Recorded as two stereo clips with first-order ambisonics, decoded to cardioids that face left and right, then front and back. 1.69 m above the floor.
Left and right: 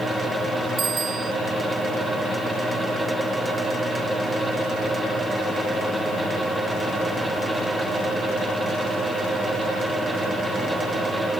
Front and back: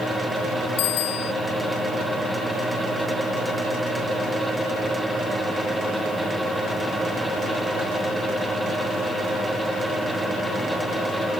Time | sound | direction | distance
0.8 | a bicycle bell | 20° right | ?